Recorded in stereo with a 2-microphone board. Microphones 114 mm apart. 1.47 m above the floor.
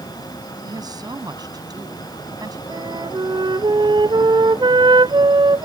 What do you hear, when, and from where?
0.6 s a woman speaking: 35° right (ahead or behind)
2.7 s a flute: 45° right (ahead or behind)